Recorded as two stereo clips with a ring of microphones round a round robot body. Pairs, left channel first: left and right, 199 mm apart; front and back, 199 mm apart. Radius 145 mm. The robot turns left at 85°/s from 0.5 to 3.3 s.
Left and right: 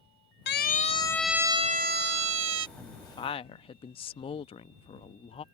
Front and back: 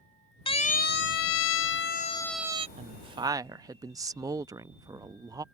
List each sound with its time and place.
0.5 s a siren: 65° left; by 2.7 s 115° right
2.8 s a woman speaking: 170° left; by 5.4 s 125° left